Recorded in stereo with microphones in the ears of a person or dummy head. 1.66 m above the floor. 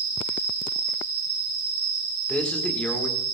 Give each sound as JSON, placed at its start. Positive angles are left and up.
{"t": 0.0, "sound": "an insect", "side_deg": -15, "distance_m": 3.5}
{"t": 2.3, "sound": "a man speaking", "side_deg": 5, "distance_m": 2.0}